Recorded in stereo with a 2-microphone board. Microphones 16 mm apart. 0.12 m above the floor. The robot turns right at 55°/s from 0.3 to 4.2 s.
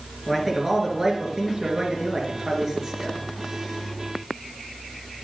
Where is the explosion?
No explosion in this recording.